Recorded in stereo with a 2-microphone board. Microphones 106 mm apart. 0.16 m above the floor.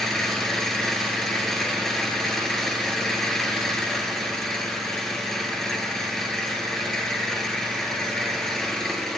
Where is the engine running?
5° left (ahead or behind), 1.2 m.